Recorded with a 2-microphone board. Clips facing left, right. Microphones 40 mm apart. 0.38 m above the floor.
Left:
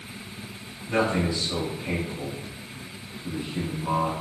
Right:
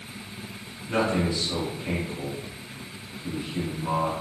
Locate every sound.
0.9 s a man speaking: 20° right (ahead or behind), 1.9 m